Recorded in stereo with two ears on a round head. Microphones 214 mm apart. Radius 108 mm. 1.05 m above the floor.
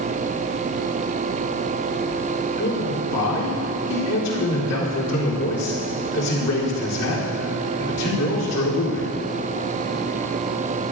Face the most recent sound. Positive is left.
turn(degrees=75)  # may be behind; listen again after turning